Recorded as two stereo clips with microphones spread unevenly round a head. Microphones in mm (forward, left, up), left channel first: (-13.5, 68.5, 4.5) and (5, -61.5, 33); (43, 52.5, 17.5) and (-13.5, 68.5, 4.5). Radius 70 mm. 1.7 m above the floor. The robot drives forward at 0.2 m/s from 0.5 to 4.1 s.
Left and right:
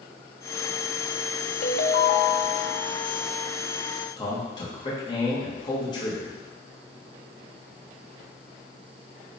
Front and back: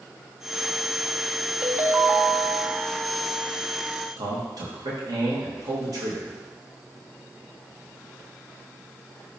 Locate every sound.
1.6 s a ringtone: 90° left, 0.9 m; by 2.9 s 115° left, 0.9 m
4.2 s a man speaking: 160° left, 2 m